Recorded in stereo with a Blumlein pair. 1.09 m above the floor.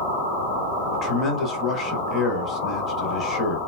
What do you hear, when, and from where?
0.9 s a man speaking: 20° left, 1.2 m